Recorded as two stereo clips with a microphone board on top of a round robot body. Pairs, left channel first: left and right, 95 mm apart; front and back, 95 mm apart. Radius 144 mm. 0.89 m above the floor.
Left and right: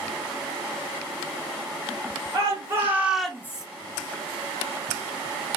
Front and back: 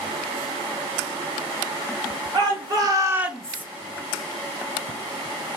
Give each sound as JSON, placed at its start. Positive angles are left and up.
{"t": 2.3, "sound": "a shout", "azimuth_deg": -145, "distance_m": 1.4}